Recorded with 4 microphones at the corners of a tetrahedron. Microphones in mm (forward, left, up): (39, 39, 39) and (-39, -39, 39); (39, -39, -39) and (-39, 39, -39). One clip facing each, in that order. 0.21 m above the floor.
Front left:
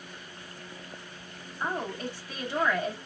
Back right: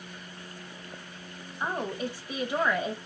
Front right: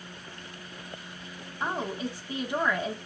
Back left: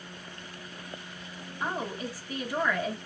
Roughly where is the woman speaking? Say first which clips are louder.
Back right 1 dB, front right 2 dB; right.